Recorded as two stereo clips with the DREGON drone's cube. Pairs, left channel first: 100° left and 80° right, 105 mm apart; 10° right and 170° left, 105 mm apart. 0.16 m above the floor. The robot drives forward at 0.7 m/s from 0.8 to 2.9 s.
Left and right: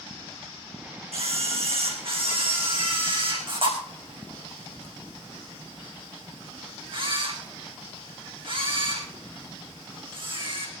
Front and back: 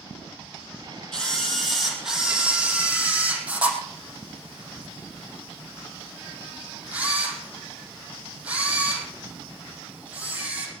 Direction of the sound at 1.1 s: 95° right.